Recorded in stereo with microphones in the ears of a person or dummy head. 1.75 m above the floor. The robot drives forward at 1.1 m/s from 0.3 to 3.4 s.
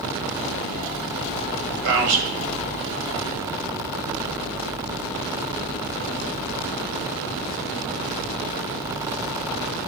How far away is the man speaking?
About 1.6 m.